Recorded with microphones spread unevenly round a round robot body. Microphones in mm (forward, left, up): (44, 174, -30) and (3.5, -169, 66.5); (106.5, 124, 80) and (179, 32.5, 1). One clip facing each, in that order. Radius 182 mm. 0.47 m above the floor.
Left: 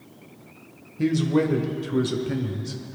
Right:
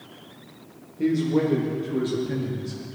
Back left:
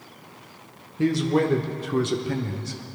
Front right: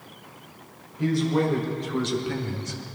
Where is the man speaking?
115° left, 1.9 m; by 2.8 s 45° left, 1.6 m.